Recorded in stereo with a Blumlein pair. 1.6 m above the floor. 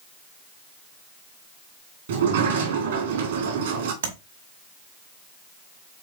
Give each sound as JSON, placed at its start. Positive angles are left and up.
{"t": 2.1, "sound": "a sliding door", "azimuth_deg": -60, "distance_m": 1.7}
{"t": 4.0, "sound": "tapping", "azimuth_deg": -65, "distance_m": 1.7}